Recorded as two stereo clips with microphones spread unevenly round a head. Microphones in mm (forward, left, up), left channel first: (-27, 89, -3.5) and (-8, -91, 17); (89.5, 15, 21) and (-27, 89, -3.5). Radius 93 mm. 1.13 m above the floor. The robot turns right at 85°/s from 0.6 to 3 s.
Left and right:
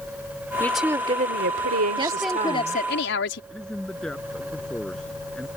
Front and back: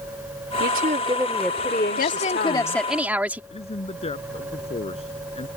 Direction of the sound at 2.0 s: 20° right.